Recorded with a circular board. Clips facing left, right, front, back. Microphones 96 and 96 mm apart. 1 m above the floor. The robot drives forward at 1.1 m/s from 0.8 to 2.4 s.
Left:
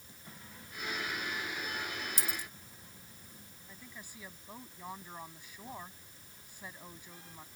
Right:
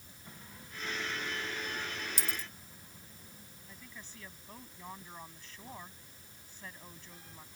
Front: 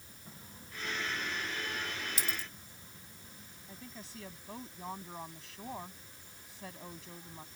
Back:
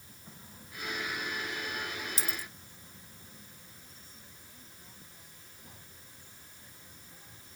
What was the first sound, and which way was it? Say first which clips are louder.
A dropped coin: even, back 1 dB; 120° right.